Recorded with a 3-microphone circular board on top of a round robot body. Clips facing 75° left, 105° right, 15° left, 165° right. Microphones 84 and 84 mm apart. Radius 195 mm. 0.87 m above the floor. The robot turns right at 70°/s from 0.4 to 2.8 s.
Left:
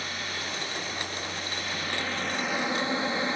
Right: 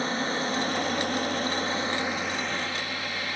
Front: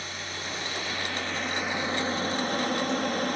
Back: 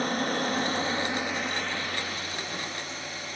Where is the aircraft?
150° right; by 3.4 s 15° left.